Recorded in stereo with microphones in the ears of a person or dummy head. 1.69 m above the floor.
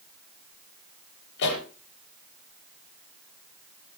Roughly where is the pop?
Left.